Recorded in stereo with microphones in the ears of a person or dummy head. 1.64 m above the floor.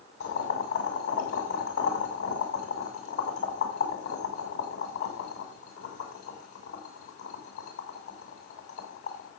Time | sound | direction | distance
0.2 | boiling | 50° left (ahead or behind) | 6.5 m